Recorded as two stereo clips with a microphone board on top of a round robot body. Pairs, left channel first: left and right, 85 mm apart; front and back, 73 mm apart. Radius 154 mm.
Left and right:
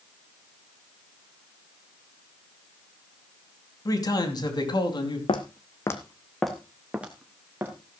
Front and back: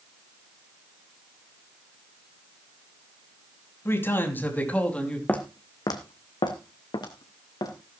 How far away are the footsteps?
About 1.4 m.